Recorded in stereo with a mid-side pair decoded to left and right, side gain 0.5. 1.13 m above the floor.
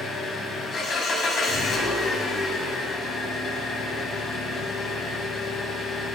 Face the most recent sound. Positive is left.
turn(degrees=50)